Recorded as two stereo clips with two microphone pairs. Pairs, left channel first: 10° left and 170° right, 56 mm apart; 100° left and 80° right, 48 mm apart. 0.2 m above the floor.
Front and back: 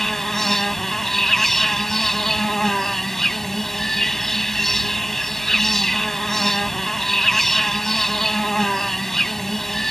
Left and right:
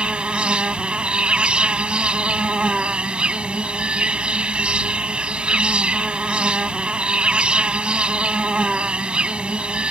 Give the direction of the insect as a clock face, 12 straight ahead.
2 o'clock.